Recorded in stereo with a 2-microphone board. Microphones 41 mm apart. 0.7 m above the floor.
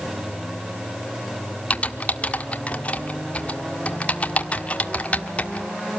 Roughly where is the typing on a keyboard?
Left.